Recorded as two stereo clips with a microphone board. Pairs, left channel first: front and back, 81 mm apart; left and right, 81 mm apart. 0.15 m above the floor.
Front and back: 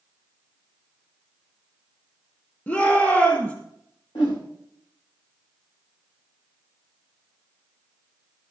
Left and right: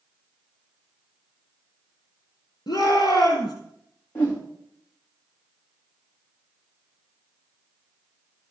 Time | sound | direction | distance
2.7 | a shout | 65° left | 6 m
4.2 | a whoosh | 25° left | 4 m